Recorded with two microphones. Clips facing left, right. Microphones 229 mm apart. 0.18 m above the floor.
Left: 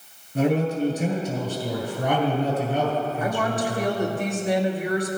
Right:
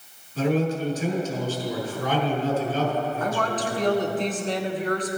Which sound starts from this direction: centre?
A woman speaking, at 3.2 s.